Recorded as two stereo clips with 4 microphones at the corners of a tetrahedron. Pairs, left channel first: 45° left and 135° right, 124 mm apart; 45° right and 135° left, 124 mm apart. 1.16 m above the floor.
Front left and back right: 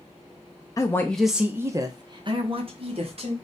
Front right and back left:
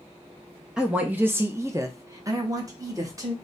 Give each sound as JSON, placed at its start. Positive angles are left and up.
{"t": 0.8, "sound": "a woman speaking", "azimuth_deg": 60, "distance_m": 0.6}